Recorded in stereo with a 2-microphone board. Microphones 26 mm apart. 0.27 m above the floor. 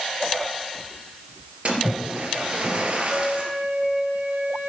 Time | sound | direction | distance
1.6 | a splash | 50° right (ahead or behind) | 3.5 m
3.1 | a flute | 70° right (ahead or behind) | 7 m